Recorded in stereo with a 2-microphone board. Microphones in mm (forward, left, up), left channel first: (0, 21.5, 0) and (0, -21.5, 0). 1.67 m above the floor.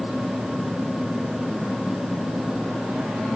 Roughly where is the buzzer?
No buzzer in this recording.